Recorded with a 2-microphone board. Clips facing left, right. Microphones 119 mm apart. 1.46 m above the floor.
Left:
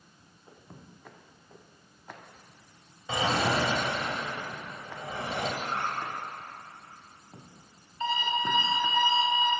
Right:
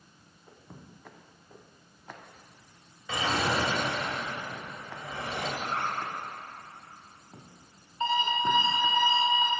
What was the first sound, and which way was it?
A drawer, 25° left (ahead or behind).